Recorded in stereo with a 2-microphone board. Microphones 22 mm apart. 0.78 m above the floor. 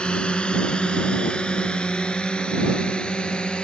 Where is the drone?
45° left (ahead or behind).